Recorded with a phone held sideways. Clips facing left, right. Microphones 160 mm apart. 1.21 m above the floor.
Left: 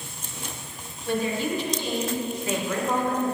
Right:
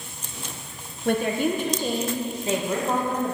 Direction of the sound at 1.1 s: 60° right (ahead or behind).